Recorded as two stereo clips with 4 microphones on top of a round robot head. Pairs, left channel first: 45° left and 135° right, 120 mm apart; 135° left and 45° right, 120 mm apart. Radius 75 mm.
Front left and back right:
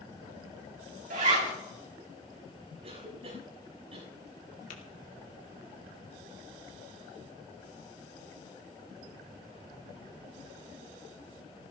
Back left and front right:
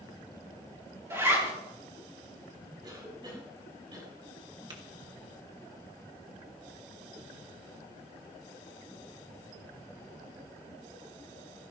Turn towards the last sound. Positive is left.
turn(degrees=15)